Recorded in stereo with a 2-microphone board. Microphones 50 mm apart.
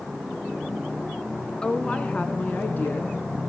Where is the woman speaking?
20° left (ahead or behind), 2.0 m; by 3.2 s 45° left (ahead or behind), 2 m.